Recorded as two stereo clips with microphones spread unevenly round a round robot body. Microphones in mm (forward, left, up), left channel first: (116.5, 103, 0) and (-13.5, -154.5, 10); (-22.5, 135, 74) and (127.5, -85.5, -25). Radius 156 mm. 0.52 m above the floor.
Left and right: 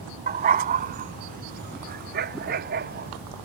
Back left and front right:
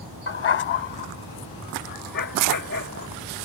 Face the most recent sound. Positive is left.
turn(degrees=180)